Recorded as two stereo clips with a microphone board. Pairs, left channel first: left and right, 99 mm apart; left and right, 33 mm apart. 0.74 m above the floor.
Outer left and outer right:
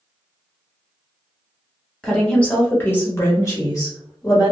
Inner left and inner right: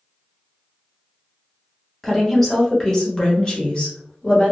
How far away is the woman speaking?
About 1.2 m.